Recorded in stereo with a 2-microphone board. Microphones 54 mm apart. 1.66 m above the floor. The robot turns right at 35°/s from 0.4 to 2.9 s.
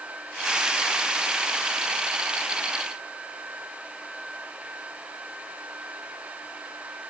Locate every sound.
Only background noise.